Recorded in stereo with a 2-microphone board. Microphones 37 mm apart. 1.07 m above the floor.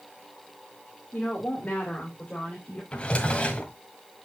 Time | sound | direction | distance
1.1 | a woman speaking | 40° left (ahead or behind) | 2.5 m
2.9 | a drawer | 30° left (ahead or behind) | 1.5 m